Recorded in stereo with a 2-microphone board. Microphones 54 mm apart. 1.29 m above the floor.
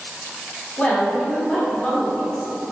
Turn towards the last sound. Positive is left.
turn(degrees=20)  # may be behind; listen again after turning